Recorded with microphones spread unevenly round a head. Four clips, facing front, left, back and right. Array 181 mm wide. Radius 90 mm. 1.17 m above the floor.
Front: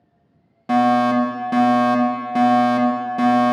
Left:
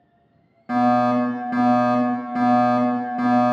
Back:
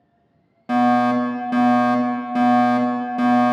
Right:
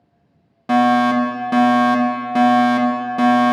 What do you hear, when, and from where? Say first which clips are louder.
0.7 s a fire alarm: right 3 dB, front 1 dB; 10° right, 1.9 m